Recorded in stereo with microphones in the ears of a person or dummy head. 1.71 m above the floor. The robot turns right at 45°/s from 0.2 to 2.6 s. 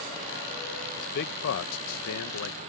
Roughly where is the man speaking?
Left.